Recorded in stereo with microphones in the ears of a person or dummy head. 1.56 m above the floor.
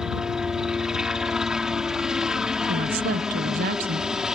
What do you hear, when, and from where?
0.0 s a helicopter: 5° right (ahead or behind)
2.7 s a woman speaking: 40° right (ahead or behind)